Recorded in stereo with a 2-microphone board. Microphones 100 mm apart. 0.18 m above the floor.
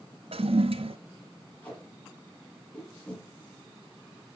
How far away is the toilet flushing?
About 0.6 m.